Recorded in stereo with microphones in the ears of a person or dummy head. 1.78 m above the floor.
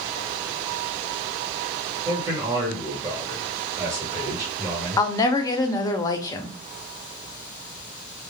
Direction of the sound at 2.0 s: 20° right (ahead or behind).